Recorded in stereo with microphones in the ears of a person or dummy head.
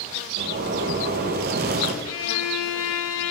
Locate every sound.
0.4 s a zipper: 50° right (ahead or behind), 1.7 m
2.0 s a violin: 70° left (ahead or behind), 1.9 m